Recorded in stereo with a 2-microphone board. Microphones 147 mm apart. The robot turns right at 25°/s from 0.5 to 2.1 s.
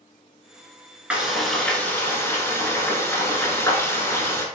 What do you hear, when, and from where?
1.1 s frying: 10° right (ahead or behind), 1.2 m; by 4.5 s 15° left (ahead or behind), 1.2 m